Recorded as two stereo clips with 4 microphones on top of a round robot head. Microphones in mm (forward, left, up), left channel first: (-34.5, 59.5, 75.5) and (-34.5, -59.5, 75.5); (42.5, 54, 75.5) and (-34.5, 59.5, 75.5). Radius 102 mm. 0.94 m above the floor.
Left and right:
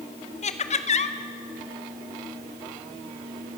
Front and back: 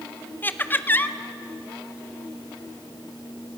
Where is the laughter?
60° left, 1.6 m.